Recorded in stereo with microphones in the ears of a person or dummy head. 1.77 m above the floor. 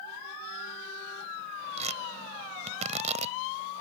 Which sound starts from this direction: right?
Tearing paper, at 1.8 s.